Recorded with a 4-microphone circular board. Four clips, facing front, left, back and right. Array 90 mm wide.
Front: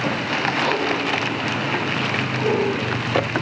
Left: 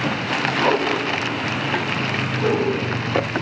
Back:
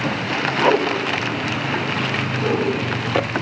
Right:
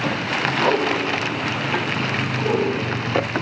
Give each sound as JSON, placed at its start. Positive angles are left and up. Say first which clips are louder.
{"t": 0.6, "sound": "a whoosh", "louder": "even, back 8 dB", "azimuth_deg": 180, "distance_m": 1.0}
{"t": 2.4, "sound": "a whoosh", "louder": "left 1 dB, even", "azimuth_deg": 120, "distance_m": 6.0}